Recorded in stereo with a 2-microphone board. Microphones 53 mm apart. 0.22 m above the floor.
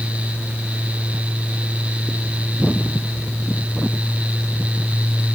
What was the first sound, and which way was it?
Only background noise.